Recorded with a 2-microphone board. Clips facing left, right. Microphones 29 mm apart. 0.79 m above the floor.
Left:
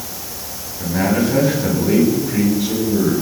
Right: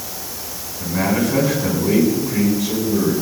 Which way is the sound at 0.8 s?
40° left (ahead or behind).